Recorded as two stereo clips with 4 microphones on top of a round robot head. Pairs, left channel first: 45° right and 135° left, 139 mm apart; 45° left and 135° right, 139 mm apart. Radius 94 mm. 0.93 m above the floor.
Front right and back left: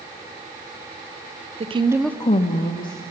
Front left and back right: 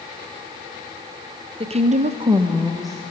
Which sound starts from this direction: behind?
A woman speaking, at 1.6 s.